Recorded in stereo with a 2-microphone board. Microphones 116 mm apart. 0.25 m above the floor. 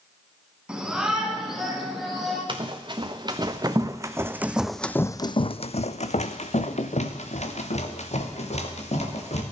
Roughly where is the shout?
Centre.